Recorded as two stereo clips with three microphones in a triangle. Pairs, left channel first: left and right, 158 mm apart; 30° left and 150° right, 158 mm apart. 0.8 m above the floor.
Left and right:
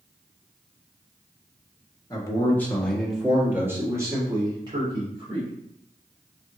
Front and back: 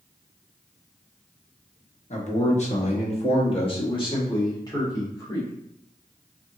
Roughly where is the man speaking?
Ahead left.